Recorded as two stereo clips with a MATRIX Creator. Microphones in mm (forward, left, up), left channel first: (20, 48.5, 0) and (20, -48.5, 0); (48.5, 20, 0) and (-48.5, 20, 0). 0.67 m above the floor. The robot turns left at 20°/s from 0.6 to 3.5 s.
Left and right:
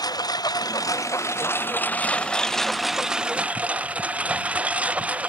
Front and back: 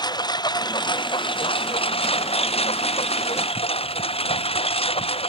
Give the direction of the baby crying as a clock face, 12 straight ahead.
I don't hear a baby crying.